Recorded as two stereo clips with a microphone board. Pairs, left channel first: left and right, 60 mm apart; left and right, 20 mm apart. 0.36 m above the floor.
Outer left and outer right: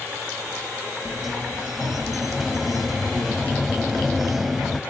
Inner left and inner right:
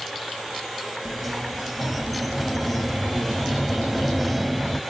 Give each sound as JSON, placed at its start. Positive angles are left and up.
{"t": 1.1, "sound": "a sliding door", "side_deg": -5, "distance_m": 1.1}